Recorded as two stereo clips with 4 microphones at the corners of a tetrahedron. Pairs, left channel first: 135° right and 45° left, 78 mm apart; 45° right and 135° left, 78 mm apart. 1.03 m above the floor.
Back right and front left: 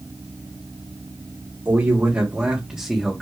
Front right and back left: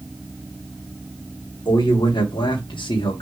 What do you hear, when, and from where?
1.6 s a man speaking: 10° right, 1.9 m; by 3.2 s 45° right, 1.5 m